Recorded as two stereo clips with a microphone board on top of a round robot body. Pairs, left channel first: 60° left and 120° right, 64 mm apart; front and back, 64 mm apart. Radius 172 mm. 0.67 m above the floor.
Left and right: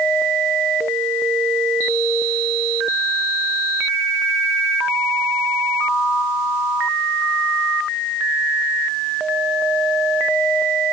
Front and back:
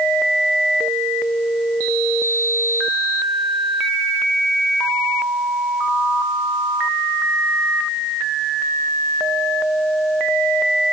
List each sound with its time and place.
Only background noise.